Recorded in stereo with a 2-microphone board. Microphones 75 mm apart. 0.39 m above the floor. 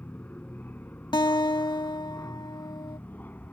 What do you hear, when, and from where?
0.0 s an aircraft: 25° left (ahead or behind)
1.1 s a guitar: 80° left